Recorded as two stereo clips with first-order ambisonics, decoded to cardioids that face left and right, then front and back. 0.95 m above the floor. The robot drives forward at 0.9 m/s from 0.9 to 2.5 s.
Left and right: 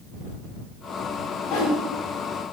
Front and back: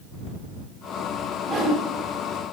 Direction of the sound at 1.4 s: 95° left.